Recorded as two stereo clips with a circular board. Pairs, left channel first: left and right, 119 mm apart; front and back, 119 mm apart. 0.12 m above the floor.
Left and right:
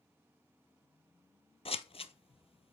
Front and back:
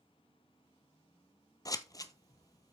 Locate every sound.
1.6 s scissors: 60° left, 0.6 m